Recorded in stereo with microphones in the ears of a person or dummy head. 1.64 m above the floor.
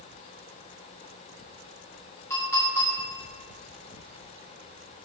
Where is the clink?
15° left (ahead or behind), 3 m.